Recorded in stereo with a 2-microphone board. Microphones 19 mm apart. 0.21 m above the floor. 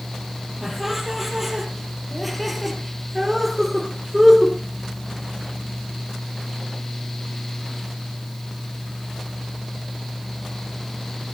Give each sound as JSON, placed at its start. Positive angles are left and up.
{"t": 0.6, "sound": "laughter", "side_deg": -5, "distance_m": 5.5}